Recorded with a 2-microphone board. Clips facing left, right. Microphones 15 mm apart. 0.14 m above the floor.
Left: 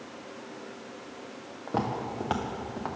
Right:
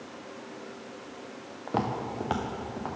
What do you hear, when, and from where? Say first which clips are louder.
1.7 s footsteps: even; 20° right (ahead or behind), 1.1 m; by 3.0 s 30° left (ahead or behind), 1.2 m